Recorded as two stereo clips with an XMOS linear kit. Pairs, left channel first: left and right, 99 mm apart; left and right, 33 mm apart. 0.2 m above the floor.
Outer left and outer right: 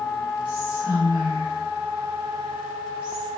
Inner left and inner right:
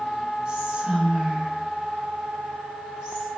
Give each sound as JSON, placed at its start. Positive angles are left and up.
{"t": 0.5, "sound": "whispering", "side_deg": -20, "distance_m": 1.5}